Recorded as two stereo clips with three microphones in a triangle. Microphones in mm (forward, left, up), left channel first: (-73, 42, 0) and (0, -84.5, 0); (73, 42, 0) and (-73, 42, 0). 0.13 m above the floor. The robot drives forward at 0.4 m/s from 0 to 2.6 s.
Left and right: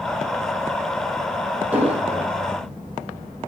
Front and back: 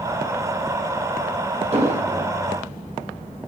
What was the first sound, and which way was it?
An explosion, 140° right.